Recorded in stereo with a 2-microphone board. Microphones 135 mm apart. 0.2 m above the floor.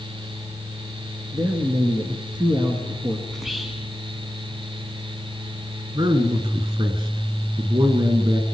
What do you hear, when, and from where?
1.3 s a man speaking: 35° right (ahead or behind), 2.5 m
3.3 s whispering: centre (ahead or behind), 1.8 m
6.0 s a man speaking: 45° right (ahead or behind), 2.5 m